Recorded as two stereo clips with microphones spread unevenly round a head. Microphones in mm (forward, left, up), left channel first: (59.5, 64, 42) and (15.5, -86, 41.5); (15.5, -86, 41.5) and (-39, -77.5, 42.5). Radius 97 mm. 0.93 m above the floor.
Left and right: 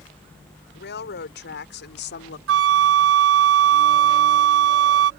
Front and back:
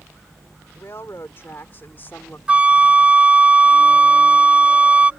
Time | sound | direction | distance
0.8 | a woman speaking | 60° left | ?
2.5 | a flute | 120° right | ?